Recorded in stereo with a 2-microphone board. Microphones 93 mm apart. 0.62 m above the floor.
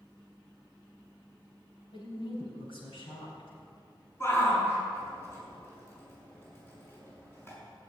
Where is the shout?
30° left (ahead or behind), 6.5 m.